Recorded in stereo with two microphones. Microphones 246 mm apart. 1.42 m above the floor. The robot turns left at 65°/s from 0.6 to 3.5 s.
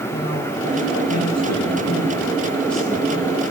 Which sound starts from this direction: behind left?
A man speaking, at 0.1 s.